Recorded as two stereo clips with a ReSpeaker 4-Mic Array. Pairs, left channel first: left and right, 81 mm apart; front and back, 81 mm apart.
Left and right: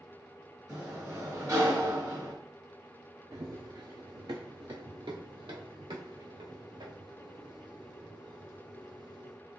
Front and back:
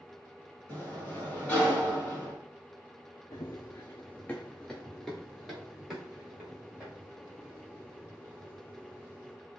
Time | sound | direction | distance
0.7 | a sliding door | 65° right | 2 m
3.3 | running footsteps | 45° right | 0.9 m